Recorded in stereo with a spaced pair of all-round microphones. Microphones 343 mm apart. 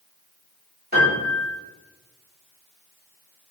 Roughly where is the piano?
Right.